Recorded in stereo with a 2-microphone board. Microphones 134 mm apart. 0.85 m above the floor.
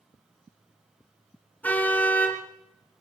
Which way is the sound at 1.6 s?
10° left (ahead or behind).